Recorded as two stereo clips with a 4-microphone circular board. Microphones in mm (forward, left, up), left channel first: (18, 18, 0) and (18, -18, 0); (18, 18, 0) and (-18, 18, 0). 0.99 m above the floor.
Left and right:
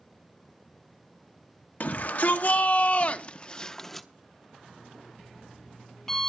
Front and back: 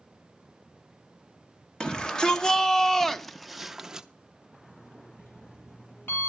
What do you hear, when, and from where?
1.8 s a shout: 65° left, 1.3 m; by 4.1 s 175° left, 0.7 m
4.7 s an alarm clock: 5° left, 9 m